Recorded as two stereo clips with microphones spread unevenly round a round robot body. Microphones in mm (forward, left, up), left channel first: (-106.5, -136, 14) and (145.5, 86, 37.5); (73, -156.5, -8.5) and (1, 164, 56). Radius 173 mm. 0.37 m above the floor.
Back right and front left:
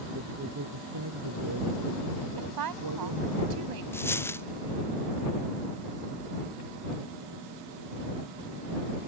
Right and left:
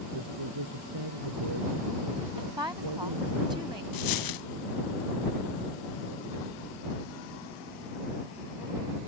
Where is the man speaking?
105° left; by 3.4 s 80° left.